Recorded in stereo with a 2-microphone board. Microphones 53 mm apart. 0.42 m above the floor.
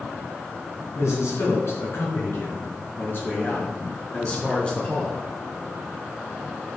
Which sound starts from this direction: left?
A man speaking, at 0.9 s.